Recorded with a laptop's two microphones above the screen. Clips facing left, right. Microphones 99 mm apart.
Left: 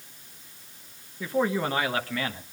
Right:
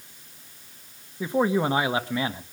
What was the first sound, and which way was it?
A man speaking, 20° right (ahead or behind).